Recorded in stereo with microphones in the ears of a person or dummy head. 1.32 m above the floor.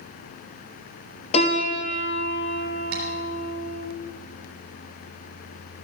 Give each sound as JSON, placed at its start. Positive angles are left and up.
{"t": 1.3, "sound": "a piano", "side_deg": 40, "distance_m": 2.5}
{"t": 2.9, "sound": "tapping", "side_deg": -65, "distance_m": 4.5}